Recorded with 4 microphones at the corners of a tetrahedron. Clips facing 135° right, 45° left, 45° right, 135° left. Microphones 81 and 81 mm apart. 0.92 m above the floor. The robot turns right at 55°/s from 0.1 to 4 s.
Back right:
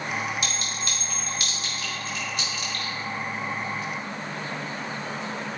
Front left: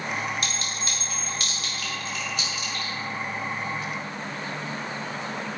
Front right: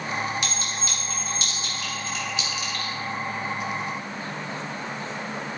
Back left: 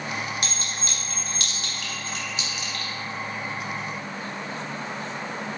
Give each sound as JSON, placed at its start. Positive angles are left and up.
{"t": 0.4, "sound": "a clink", "azimuth_deg": 90, "distance_m": 3.0}